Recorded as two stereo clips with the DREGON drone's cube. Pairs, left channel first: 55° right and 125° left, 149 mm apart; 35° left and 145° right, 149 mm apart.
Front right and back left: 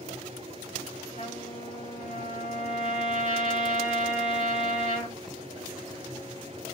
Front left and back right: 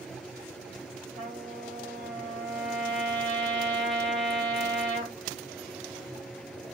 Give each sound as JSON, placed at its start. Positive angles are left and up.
{"t": 1.1, "sound": "a trumpet", "azimuth_deg": -55, "distance_m": 2.5}